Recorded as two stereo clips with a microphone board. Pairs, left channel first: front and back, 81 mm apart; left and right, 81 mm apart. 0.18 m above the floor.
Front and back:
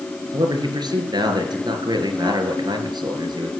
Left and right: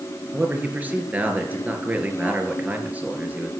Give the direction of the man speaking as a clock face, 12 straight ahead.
5 o'clock.